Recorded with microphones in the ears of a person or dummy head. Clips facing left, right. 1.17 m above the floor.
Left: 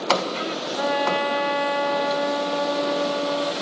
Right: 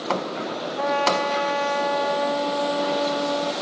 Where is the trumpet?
5° left (ahead or behind), 0.9 m.